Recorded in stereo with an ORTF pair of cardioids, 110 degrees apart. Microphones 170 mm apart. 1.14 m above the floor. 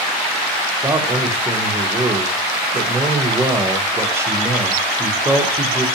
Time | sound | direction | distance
0.8 | a man speaking | 15° right | 0.6 m